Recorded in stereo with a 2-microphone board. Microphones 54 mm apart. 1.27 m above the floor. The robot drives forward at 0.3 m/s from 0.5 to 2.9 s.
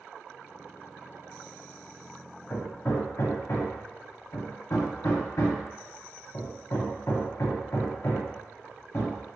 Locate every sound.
2.5 s hammering: 65° left (ahead or behind), 0.6 m; by 9.2 s 55° left (ahead or behind), 0.7 m